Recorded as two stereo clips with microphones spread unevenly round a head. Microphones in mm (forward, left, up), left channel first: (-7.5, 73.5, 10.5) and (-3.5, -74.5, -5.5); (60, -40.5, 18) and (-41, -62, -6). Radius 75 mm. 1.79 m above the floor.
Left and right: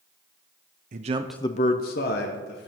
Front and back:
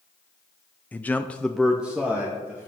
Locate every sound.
0.9 s a man speaking: 50° right, 0.8 m; by 2.7 s 110° left, 2 m